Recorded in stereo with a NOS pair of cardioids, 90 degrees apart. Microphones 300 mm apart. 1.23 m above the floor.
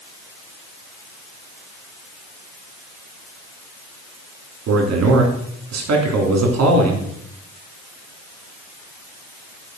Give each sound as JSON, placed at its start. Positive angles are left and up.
{"t": 4.7, "sound": "a man speaking", "azimuth_deg": -60, "distance_m": 3.5}